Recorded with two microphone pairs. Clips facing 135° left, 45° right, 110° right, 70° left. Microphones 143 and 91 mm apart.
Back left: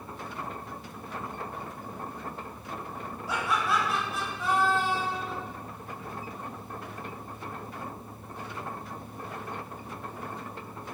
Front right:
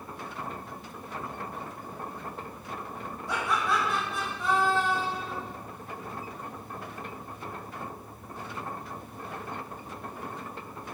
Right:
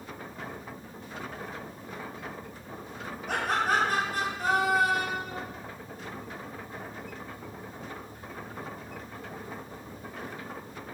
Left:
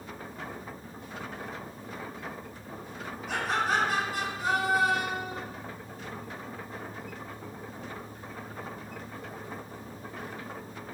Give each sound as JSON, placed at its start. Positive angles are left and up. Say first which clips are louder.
{"t": 3.3, "sound": "laughter", "louder": "even, right 1 dB", "azimuth_deg": -135, "distance_m": 0.7}